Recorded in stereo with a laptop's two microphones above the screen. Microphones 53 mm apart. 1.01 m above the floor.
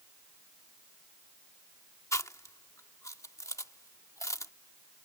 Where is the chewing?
75° left (ahead or behind).